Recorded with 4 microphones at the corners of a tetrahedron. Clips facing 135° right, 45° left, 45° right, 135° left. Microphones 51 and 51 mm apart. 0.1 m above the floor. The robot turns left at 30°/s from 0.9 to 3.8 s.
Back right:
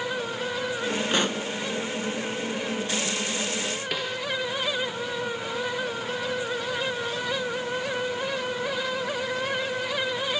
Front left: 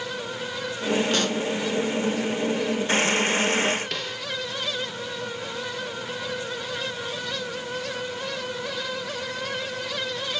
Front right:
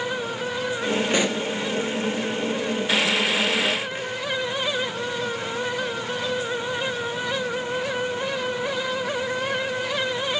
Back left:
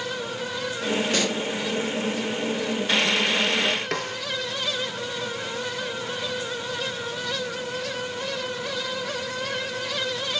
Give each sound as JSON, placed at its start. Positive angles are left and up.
{"t": 1.1, "sound": "a pop", "azimuth_deg": -90, "distance_m": 1.5}
{"t": 3.9, "sound": "a snare drum", "azimuth_deg": 145, "distance_m": 3.5}